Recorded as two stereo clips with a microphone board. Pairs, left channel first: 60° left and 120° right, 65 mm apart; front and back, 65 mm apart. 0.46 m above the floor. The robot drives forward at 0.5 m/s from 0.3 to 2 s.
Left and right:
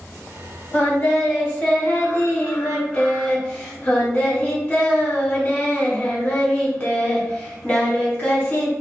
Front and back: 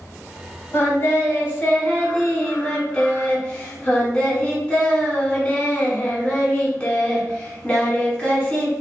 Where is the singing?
15° left, 1.2 m; by 8.7 s 45° left, 0.9 m.